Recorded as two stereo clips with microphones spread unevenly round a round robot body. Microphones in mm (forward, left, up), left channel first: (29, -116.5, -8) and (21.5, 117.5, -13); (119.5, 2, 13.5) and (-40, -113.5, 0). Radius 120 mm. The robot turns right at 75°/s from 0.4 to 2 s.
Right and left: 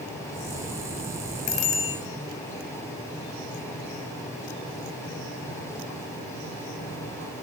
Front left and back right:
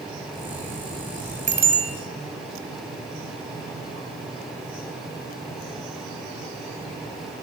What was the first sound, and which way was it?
A bicycle bell, 95° right.